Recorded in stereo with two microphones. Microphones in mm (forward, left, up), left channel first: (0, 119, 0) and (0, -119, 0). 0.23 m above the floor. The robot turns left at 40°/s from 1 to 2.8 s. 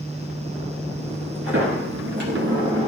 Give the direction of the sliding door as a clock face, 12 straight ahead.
3 o'clock.